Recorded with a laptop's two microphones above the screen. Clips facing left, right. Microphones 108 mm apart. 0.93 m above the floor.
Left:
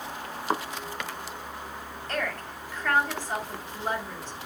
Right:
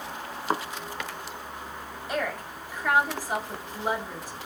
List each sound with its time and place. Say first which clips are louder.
2.1 s a woman speaking: right 2 dB; 10° right (ahead or behind), 2.5 m